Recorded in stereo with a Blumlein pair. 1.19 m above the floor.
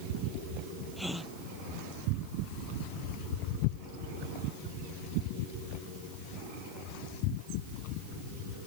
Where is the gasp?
5° left.